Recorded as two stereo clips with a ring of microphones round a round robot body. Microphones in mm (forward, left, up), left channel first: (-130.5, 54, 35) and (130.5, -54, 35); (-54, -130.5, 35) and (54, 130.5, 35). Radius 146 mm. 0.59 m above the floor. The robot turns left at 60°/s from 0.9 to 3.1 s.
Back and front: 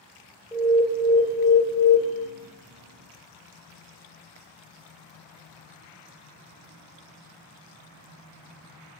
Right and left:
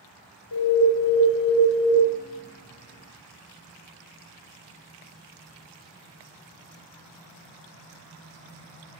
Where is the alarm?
120° right, 2 m; by 2.0 s 175° left, 2 m.